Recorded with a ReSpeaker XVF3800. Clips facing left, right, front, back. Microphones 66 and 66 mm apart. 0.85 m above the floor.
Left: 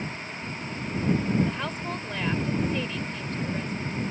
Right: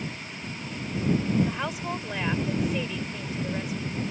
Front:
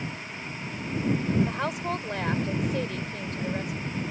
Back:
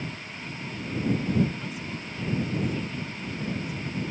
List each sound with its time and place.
1.5 s a woman speaking: 10° right